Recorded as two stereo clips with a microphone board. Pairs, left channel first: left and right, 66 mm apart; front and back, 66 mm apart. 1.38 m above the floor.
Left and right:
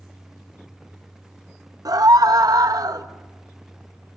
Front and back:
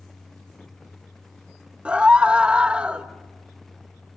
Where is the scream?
105° right, 1.6 m.